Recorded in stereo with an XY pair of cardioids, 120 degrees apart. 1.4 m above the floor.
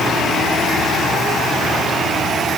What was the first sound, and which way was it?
Only background noise.